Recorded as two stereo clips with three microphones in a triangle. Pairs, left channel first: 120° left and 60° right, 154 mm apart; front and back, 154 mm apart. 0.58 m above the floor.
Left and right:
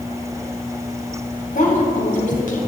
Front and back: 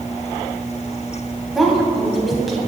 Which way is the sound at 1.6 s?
90° left.